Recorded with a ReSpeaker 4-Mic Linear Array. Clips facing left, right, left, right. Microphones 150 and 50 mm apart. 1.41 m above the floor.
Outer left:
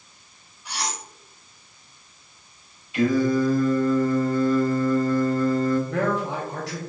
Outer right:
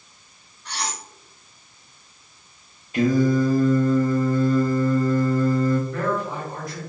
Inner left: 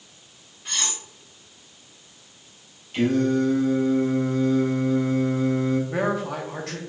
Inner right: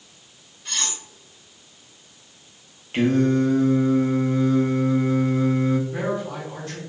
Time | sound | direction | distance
0.7 | cutlery clinking | 10° left (ahead or behind) | 1.4 m
2.9 | singing | 40° right (ahead or behind) | 1.0 m
5.9 | a man speaking | 70° left (ahead or behind) | 1.1 m